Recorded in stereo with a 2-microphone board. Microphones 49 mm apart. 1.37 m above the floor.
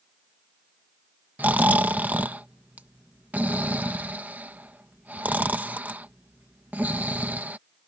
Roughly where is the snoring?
Right.